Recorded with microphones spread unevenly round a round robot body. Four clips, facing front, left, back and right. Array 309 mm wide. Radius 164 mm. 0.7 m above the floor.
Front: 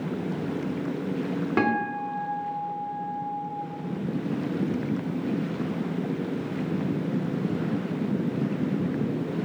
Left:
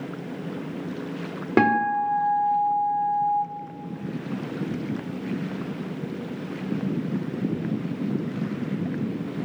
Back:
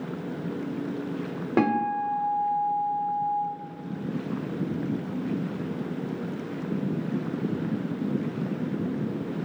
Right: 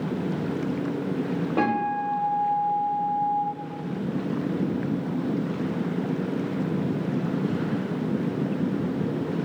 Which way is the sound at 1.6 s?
90° left.